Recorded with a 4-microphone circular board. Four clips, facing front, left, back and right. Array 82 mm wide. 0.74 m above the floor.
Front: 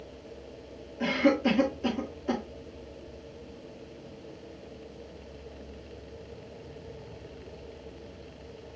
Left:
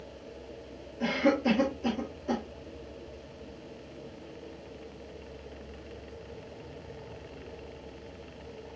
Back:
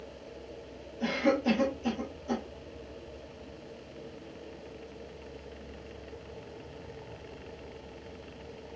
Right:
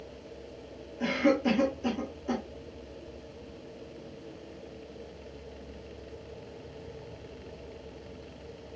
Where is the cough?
10° right, 1.5 m.